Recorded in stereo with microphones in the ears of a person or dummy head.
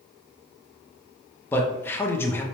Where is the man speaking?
10° left (ahead or behind), 0.6 m.